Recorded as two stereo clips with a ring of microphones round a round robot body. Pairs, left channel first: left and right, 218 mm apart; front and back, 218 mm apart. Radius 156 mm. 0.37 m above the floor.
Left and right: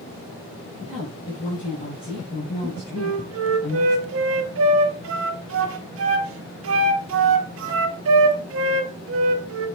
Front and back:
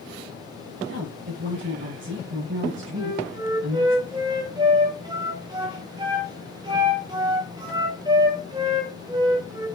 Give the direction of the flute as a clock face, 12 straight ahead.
4 o'clock.